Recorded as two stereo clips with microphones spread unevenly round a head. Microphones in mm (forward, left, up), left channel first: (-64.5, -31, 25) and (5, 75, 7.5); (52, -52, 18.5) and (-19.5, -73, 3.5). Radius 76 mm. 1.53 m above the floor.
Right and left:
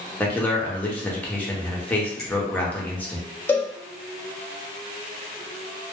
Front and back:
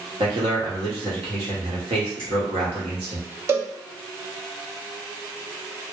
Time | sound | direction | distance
0.2 | a man speaking | 160° left | 0.9 m
2.2 | a finger snap | 150° left | 1.3 m
3.5 | a cowbell | 140° right | 0.5 m